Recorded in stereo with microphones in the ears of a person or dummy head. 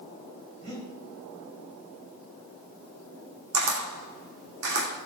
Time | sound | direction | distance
0.6 | breathing | 70° right (ahead or behind) | 3 m
3.5 | a camera shutter | 70° right (ahead or behind) | 1.8 m